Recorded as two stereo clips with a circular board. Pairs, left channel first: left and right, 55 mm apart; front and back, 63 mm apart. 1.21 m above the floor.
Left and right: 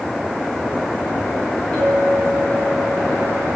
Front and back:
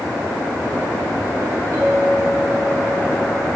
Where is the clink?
150° left, 3.5 m.